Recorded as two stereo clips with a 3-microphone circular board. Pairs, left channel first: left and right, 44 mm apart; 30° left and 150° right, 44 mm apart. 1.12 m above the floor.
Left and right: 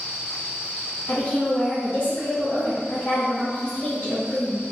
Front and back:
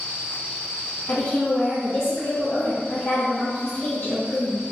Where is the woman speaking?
35° left, 1.1 m.